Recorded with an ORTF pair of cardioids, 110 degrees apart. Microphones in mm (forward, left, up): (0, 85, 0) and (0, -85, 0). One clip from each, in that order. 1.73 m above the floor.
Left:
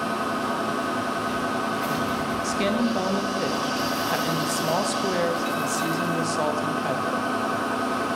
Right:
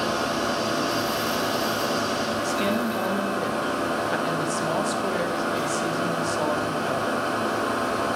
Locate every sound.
0.0 s a machine running: 20° right, 1.0 m
2.4 s a woman speaking: 10° left, 0.6 m